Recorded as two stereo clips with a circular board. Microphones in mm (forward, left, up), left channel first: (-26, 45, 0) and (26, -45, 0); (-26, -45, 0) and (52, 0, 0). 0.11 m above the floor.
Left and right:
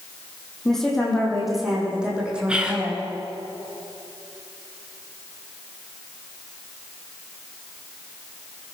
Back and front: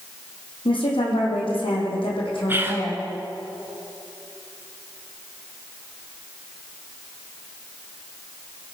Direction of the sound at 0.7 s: 155° right.